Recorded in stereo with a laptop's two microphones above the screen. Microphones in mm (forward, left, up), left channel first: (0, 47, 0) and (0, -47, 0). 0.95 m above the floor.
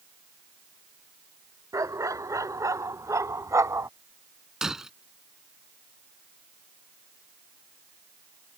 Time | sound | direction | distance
1.7 | a dog barking | 35° right (ahead or behind) | ?
4.6 | breaking glass | 5° right (ahead or behind) | ?